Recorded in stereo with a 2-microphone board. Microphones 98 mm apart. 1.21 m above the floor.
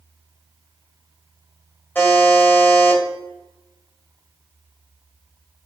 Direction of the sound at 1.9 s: 20° left (ahead or behind).